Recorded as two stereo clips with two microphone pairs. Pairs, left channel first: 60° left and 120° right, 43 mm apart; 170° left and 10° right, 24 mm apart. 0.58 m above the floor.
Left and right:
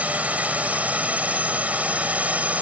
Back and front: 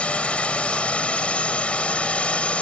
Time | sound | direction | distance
0.0 | a drone | 170° right | ?